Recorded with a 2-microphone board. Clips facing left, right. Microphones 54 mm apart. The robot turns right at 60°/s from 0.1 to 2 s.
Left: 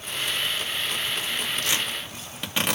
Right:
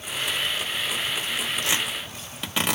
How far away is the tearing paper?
About 1.6 m.